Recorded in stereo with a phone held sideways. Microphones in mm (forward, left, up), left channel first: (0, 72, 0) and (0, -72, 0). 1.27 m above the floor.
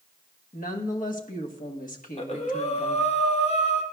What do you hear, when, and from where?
0.5 s a woman speaking: 70° left (ahead or behind), 1.2 m
2.0 s breathing: 45° left (ahead or behind), 1.1 m